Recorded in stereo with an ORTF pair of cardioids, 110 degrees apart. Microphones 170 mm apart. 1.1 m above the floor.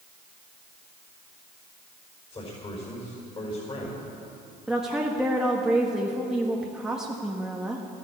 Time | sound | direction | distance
2.3 | a man speaking | 35° left | 5 m
4.7 | a woman speaking | 5° right | 1.4 m